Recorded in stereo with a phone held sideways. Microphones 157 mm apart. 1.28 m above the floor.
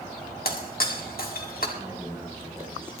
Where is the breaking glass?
70° left (ahead or behind), 1.8 m.